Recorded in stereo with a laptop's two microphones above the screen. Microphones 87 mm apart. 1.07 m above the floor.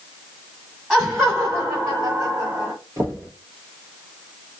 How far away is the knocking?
About 0.7 m.